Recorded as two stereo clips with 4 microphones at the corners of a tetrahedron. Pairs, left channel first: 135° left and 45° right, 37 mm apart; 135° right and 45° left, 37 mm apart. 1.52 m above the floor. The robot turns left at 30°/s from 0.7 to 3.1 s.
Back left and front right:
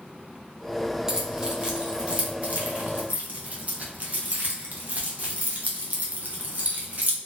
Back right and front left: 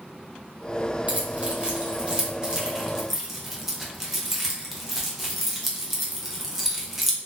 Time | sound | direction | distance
1.1 | keys jangling | 30° left | 0.6 m